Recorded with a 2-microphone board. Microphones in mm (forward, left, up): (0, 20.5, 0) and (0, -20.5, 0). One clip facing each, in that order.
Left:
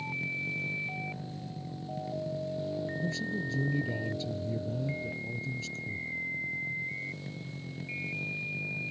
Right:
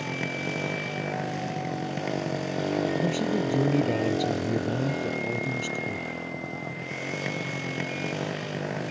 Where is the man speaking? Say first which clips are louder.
Right 8 dB; 50° right (ahead or behind).